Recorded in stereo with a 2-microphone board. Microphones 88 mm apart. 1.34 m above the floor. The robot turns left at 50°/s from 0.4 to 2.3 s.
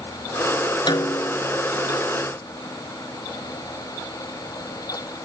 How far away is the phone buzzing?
No phone buzzing in this recording.